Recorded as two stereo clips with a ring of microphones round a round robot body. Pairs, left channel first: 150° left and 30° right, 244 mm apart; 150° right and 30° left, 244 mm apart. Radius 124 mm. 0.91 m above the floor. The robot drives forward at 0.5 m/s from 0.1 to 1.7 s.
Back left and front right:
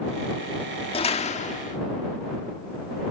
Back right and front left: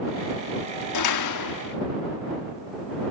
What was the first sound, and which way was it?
A door slam, 140° right.